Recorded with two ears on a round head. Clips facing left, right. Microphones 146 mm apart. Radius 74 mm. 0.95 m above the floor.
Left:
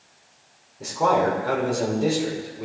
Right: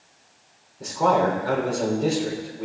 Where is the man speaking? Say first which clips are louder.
Even; 5° left (ahead or behind), 3.5 m.